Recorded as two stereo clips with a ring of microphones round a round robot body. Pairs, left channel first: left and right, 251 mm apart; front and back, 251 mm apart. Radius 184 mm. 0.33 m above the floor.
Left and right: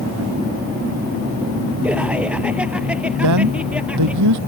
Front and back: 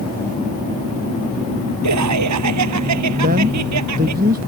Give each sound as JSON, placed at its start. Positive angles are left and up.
{"t": 1.8, "sound": "laughter", "azimuth_deg": -175}
{"t": 3.2, "sound": "a man speaking", "azimuth_deg": -115}